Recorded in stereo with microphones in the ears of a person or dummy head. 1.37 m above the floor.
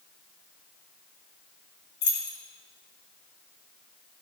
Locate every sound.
2.0 s keys jangling: 50° left (ahead or behind), 1.7 m